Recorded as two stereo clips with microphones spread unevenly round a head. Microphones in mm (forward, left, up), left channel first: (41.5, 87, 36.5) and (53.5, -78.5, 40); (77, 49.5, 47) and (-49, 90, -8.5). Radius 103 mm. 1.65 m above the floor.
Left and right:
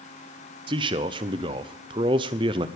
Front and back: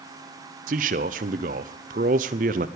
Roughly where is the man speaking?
Behind right.